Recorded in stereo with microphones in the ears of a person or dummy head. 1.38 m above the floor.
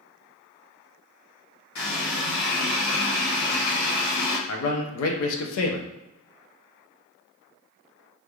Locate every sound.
1.8 s a running tap: 70° left (ahead or behind), 1.0 m
4.5 s a man speaking: 80° left, 0.5 m